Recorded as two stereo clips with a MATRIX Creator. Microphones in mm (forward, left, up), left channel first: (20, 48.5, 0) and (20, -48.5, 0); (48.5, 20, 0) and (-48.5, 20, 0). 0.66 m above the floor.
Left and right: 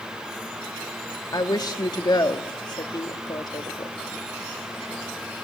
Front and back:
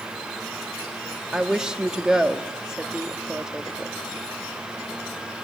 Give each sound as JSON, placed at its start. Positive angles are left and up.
{"t": 1.3, "sound": "a woman speaking", "azimuth_deg": 100, "distance_m": 1.0}